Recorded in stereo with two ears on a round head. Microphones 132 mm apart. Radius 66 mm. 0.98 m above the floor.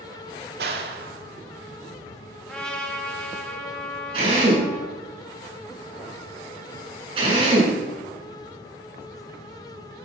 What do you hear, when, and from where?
0.6 s a clap: 75° right (ahead or behind), 2 m
2.4 s a trumpet: 5° left (ahead or behind), 2.5 m
4.1 s a drill: 40° right (ahead or behind), 7.5 m